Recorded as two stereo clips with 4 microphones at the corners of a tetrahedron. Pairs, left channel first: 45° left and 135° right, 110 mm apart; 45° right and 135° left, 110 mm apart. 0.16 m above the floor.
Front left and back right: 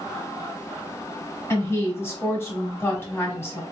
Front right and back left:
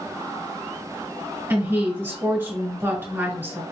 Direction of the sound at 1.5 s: 90° left.